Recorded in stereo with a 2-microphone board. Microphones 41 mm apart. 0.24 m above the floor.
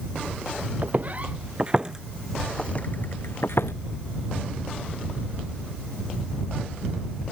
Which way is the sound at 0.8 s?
45° right (ahead or behind).